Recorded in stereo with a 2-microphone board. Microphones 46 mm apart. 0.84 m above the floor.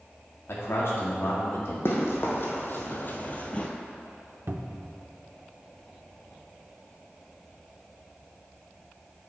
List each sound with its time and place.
0.5 s a man speaking: 65° left (ahead or behind), 1.9 m
1.9 s running footsteps: 55° left (ahead or behind), 1.8 m; by 3.7 s 25° left (ahead or behind), 0.9 m
4.5 s a cupboard door: 50° right (ahead or behind), 0.5 m